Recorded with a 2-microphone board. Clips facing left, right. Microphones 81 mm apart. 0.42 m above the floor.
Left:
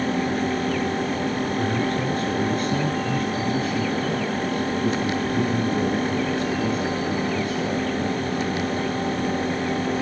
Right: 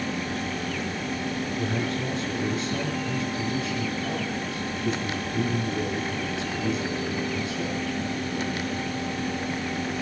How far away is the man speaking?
About 5.5 m.